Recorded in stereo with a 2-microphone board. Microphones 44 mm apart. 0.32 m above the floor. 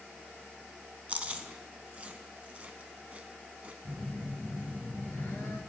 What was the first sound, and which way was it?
Chewing, 35° right (ahead or behind).